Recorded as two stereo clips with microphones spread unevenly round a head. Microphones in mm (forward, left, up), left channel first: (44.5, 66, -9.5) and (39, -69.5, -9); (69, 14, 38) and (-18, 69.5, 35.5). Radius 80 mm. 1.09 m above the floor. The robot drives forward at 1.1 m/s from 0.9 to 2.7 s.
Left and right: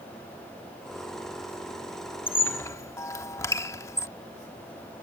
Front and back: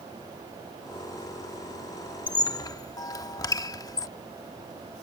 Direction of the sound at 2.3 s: 15° left.